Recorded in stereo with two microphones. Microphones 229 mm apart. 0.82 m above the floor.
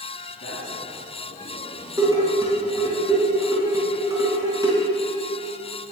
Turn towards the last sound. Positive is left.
turn(degrees=-15)  # may be behind; listen again after turning